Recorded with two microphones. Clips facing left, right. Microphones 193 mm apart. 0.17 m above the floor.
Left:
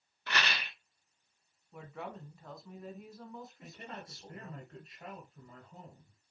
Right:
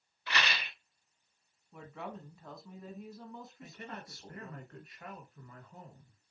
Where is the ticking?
No ticking in this recording.